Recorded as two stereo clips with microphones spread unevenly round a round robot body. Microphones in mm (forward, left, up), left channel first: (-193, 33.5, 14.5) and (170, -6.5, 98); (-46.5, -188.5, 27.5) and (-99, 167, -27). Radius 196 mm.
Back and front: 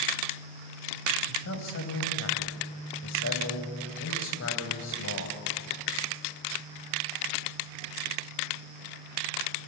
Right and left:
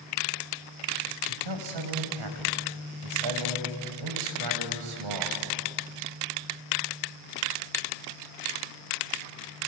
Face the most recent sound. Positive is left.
turn(degrees=120)